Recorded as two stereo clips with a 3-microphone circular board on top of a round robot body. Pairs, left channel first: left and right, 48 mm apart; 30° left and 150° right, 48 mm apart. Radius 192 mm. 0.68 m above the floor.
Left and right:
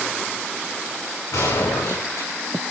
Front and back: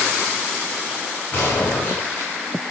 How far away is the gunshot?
About 10 m.